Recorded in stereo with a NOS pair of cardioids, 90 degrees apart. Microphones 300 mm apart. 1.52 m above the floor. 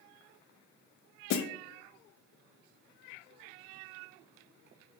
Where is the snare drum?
60° left, 0.6 m.